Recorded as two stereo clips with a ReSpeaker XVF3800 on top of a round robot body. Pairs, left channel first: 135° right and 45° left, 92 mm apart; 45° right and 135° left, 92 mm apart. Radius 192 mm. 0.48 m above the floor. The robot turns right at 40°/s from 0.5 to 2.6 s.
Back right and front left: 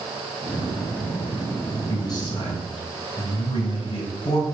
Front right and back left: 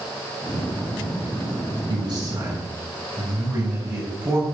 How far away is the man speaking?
About 5 m.